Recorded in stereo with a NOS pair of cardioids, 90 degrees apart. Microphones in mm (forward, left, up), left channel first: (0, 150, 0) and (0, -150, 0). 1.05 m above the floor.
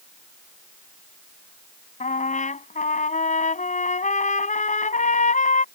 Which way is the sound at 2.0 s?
25° left.